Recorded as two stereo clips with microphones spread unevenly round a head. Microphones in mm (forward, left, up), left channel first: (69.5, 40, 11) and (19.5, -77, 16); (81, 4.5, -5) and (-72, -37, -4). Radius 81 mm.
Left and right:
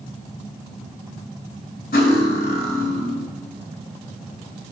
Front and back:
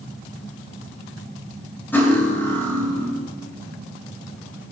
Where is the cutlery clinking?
95° left, 2.0 m.